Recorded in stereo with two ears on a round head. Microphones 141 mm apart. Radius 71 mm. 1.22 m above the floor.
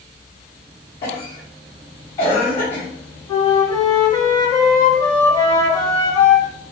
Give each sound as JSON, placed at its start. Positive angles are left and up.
{"t": 1.0, "sound": "a cough", "side_deg": 40, "distance_m": 1.3}
{"t": 3.3, "sound": "a flute", "side_deg": 30, "distance_m": 1.9}